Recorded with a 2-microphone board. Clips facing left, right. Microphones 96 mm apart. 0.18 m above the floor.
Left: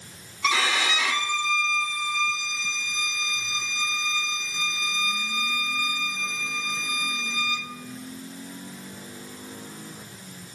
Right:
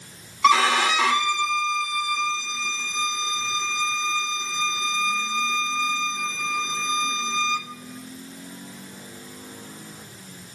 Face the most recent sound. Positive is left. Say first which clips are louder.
# right 7 dB
turn(degrees=-55)  # may be behind; listen again after turning